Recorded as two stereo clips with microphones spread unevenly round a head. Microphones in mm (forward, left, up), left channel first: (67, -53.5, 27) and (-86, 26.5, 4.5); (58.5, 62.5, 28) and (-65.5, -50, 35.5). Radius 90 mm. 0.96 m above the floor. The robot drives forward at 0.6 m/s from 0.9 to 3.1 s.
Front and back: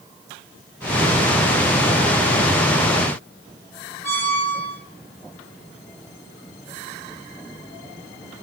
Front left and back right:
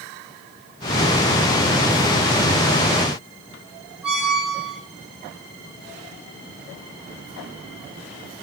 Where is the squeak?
140° left, 3 m.